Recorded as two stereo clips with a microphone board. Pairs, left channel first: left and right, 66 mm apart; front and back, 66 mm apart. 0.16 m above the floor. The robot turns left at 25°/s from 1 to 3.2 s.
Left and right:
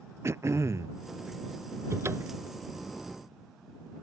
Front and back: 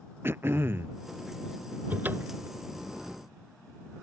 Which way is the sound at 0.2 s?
130° right.